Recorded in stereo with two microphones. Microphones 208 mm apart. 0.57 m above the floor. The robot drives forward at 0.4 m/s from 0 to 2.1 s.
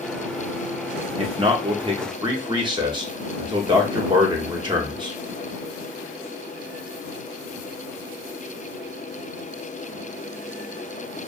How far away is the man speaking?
About 0.7 m.